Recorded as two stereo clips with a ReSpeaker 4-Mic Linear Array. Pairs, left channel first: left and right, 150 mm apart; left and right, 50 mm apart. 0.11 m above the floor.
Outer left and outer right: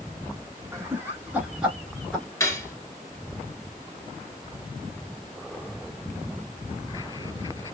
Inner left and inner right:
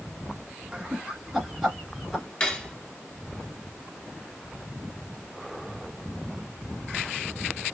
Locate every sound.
0.7 s laughter: 20° right (ahead or behind), 1.2 m; by 2.2 s centre (ahead or behind), 1.3 m
2.4 s cutlery clinking: 20° left (ahead or behind), 0.9 m